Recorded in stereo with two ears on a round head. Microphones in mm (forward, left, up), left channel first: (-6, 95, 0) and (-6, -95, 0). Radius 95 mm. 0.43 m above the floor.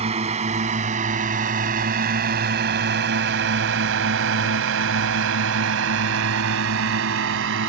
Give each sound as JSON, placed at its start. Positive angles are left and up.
{"t": 0.0, "sound": "a drone", "side_deg": -30}